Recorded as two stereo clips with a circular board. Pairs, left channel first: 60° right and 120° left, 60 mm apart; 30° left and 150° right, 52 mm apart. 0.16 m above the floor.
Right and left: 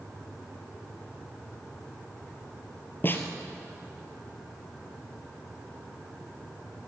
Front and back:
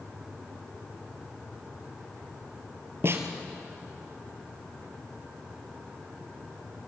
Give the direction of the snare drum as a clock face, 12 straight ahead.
4 o'clock.